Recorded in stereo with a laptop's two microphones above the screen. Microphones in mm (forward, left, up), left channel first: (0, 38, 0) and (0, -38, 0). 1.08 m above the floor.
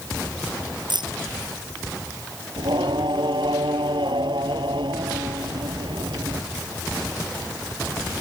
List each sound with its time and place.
0.9 s keys jangling: 70° right (ahead or behind)
2.6 s singing: 85° right